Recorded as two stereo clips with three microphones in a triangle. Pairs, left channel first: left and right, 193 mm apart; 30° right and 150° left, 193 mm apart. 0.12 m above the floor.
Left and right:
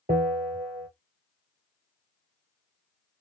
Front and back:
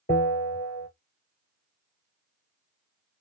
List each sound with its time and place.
0.1 s a bell: 50° right, 2 m